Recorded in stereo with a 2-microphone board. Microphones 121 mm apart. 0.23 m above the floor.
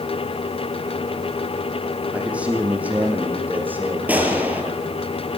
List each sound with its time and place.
2.1 s a man speaking: 10° right (ahead or behind), 8.5 m; by 5.1 s 20° right (ahead or behind), 11 m
4.1 s a gunshot: 15° right (ahead or behind), 5 m